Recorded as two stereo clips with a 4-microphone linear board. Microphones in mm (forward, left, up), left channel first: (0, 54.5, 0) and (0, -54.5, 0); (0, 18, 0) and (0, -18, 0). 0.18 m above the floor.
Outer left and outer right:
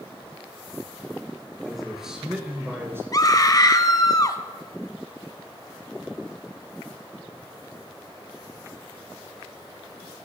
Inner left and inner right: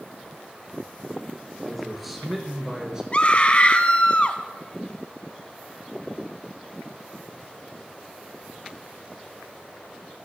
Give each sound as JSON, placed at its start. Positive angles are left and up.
{"t": 1.6, "sound": "a man speaking", "side_deg": 0, "distance_m": 3.5}
{"t": 3.1, "sound": "a scream", "side_deg": 35, "distance_m": 1.2}